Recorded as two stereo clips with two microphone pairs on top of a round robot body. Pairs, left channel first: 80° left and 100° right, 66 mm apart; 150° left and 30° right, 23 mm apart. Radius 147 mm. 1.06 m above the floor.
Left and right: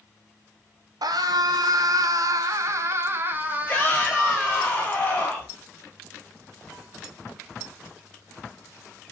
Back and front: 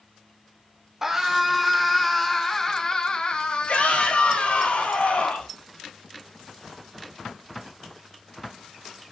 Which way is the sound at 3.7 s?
145° left.